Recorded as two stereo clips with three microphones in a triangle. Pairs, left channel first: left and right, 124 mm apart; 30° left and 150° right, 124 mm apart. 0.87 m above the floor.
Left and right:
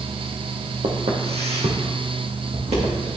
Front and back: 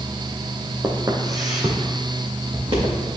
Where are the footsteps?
85° right, 1.4 m; by 3.0 s 110° right, 3 m.